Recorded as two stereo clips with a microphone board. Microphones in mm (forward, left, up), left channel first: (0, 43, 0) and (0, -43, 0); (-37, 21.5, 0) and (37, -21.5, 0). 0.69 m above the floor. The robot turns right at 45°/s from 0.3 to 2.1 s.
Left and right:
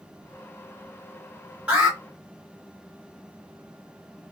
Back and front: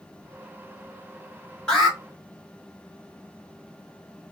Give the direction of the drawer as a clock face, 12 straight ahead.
No drawer in this recording.